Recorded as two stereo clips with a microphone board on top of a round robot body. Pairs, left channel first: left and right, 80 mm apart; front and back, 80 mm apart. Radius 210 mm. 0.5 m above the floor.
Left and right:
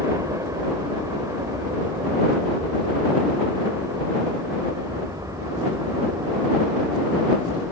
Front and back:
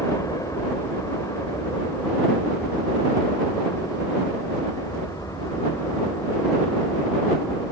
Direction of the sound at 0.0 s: 45° right.